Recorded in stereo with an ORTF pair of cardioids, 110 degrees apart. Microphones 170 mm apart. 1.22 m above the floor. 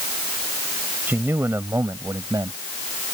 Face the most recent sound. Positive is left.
turn(degrees=-20)